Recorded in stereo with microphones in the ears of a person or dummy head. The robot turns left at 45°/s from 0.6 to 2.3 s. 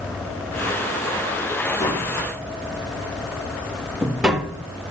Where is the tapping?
15° left (ahead or behind), 1.8 m; by 4.7 s 5° right (ahead or behind), 1.8 m.